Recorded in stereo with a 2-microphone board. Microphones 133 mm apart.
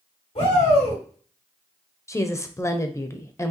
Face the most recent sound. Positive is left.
turn(degrees=20)  # may be behind; listen again after turning